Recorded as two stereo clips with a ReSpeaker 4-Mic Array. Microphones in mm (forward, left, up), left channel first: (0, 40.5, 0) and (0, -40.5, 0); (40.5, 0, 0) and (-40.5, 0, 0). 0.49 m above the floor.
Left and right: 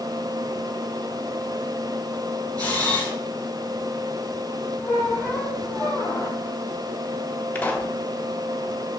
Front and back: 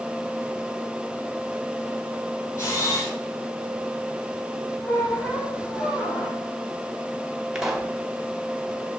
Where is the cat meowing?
No cat meowing in this recording.